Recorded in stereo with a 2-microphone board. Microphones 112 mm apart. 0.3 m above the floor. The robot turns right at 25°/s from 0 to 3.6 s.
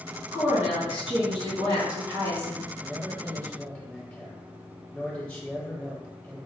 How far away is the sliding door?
I don't hear a sliding door.